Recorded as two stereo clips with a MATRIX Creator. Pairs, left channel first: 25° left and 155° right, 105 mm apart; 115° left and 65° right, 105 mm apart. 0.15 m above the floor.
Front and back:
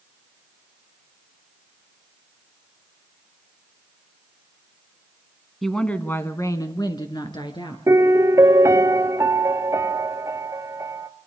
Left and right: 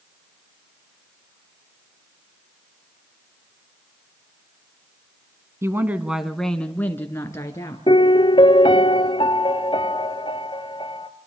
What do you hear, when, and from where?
5.6 s a woman speaking: 65° right, 1.3 m; by 7.8 s 55° left, 2.5 m
7.9 s a piano: 145° left, 1.1 m